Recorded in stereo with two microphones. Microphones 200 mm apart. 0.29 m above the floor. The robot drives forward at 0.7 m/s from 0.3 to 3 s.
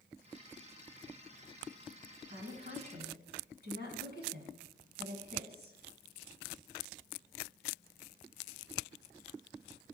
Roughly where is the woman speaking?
Right.